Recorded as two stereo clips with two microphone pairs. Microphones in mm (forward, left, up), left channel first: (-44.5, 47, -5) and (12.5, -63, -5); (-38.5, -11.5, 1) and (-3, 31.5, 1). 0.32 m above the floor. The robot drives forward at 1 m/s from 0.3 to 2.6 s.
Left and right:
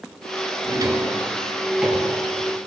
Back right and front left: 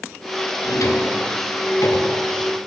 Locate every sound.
0.7 s a drawer: 120° right, 1.3 m; by 2.2 s 150° right, 2.5 m